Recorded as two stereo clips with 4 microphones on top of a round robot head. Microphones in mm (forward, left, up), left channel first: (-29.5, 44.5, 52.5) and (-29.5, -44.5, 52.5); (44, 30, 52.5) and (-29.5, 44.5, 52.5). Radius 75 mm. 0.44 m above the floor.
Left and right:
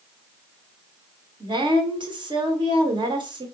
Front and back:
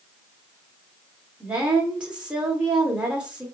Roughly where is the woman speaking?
Behind right.